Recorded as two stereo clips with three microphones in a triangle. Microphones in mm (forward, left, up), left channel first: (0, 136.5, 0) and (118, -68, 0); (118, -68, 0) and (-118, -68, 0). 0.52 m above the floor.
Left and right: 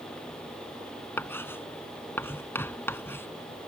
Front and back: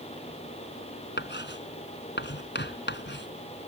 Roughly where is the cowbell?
I don't hear a cowbell.